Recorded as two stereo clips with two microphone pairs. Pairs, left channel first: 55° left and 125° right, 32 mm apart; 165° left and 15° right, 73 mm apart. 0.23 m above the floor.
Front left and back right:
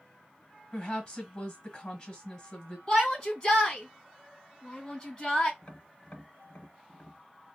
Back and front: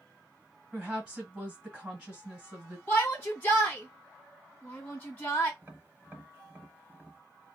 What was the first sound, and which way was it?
A woman speaking, 50° left.